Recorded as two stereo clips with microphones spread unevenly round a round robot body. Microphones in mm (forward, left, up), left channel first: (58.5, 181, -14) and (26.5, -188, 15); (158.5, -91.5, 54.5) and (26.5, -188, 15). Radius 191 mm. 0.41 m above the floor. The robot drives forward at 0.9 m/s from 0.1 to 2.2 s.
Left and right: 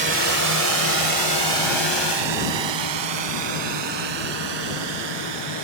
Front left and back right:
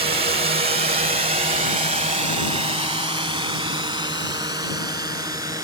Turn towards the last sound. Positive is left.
turn(degrees=-75)